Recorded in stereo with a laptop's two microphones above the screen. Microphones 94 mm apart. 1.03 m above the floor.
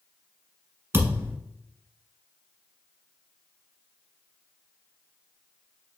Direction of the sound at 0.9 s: 25° right (ahead or behind).